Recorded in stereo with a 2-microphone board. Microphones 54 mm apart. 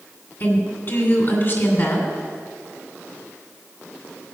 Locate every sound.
0.4 s a woman speaking: 45° left (ahead or behind), 2.5 m